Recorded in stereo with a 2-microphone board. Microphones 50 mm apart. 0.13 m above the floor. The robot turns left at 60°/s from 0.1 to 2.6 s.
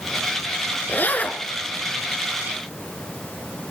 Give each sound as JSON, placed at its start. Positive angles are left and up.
{"t": 0.9, "sound": "a zipper", "azimuth_deg": 65, "distance_m": 1.2}